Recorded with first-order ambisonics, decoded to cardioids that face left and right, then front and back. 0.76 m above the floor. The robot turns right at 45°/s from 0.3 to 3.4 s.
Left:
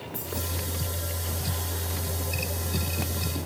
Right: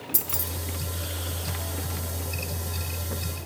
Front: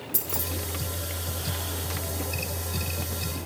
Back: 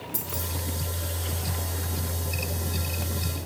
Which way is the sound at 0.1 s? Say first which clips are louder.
Right 1 dB, front 3 dB; 80° right.